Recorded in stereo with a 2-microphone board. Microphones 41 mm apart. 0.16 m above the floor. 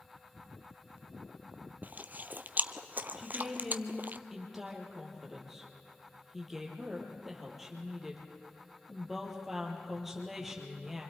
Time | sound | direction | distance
1.8 | chewing | 50° right (ahead or behind) | 0.6 m
3.2 | a woman speaking | 5° right (ahead or behind) | 4 m